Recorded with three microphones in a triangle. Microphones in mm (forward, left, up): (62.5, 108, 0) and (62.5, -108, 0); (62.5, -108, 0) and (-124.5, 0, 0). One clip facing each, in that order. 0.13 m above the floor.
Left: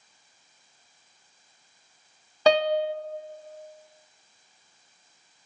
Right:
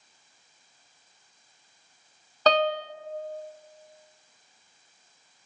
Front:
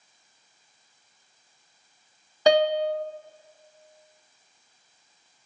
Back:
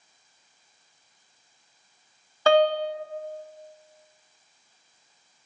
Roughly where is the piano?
Ahead.